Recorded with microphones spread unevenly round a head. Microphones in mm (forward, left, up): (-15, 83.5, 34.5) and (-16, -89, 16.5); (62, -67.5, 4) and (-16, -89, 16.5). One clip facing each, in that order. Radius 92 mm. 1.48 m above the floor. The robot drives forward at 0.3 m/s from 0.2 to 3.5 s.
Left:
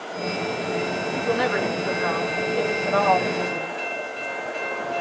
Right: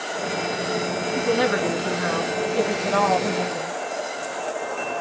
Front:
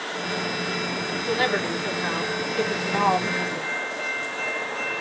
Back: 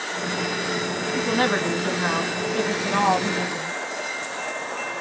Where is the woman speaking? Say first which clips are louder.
Right 2 dB, back 2 dB; 120° right, 1.3 m; by 3.8 s 140° right, 1.8 m.